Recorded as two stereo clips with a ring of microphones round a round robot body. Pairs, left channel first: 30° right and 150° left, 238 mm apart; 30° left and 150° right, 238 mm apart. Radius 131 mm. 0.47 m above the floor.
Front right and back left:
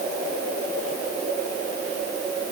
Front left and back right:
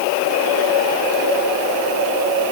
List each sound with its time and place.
Only background noise.